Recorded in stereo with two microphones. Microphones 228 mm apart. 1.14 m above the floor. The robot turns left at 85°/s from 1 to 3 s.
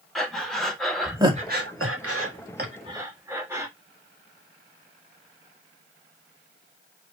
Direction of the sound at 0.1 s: Centre (ahead or behind).